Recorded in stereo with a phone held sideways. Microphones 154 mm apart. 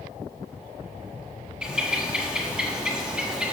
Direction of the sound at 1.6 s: 5° right (ahead or behind).